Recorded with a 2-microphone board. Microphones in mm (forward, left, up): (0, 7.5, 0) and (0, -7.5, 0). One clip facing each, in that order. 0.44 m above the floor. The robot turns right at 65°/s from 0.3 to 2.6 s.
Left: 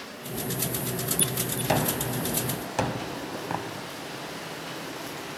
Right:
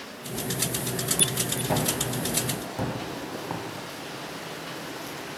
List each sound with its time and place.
1.7 s a gunshot: 55° left (ahead or behind), 1.7 m; by 5.4 s 60° left (ahead or behind), 1.7 m